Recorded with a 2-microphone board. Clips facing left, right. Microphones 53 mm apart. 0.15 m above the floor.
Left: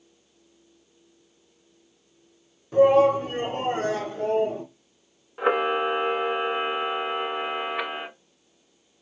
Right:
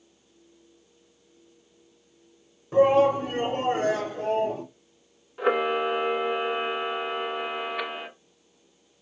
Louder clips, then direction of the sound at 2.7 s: Left 2 dB; 20° right (ahead or behind).